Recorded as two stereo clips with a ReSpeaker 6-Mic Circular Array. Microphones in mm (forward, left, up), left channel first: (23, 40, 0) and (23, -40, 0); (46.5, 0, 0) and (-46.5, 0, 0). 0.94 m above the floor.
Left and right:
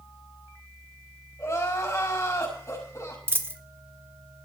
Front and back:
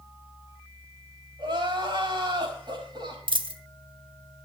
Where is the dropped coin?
155° right, 1.0 m.